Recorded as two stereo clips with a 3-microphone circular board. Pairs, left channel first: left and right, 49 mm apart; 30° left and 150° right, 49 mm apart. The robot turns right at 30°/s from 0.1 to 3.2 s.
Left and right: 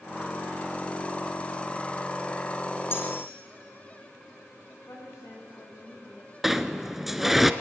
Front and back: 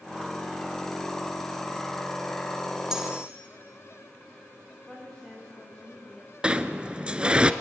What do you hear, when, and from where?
2.9 s cutlery clinking: 130° left, 3.5 m; by 3.3 s 140° left, 3.5 m
4.9 s a woman speaking: 110° left, 8.5 m
6.4 s a sliding door: 170° right, 0.9 m